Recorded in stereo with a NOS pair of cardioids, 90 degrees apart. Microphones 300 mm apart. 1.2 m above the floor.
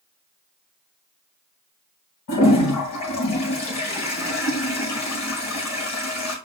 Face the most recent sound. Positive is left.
turn(degrees=65)